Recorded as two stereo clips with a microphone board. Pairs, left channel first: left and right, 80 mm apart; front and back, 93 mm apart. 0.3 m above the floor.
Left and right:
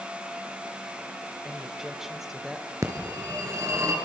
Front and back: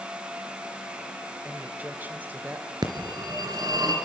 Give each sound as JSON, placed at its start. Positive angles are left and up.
{"t": 1.4, "sound": "a woman speaking", "azimuth_deg": -165, "distance_m": 1.4}
{"t": 2.8, "sound": "a phone ringing", "azimuth_deg": -135, "distance_m": 3.0}